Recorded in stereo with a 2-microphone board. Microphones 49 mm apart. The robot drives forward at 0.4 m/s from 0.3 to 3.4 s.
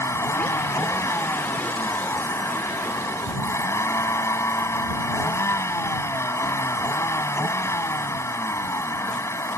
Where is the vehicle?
75° left (ahead or behind); by 9.6 s 80° left.